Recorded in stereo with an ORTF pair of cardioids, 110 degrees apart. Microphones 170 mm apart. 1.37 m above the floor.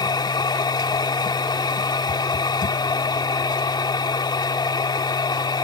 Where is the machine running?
25° left.